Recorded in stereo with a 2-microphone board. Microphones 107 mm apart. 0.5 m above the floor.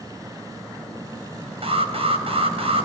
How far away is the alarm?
About 3.5 m.